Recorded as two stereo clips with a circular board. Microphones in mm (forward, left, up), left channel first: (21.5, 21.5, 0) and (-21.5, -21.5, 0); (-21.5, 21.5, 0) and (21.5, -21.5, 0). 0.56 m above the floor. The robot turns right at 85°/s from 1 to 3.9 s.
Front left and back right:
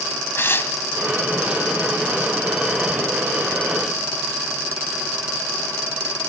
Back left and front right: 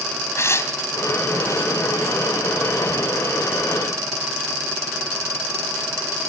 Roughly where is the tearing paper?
Left.